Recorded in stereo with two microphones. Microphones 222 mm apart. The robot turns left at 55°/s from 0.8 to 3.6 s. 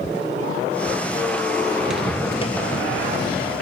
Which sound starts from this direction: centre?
Footsteps, at 1.8 s.